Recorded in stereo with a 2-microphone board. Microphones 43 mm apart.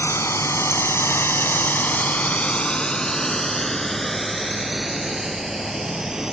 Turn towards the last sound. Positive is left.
turn(degrees=-10)  # may be behind; listen again after turning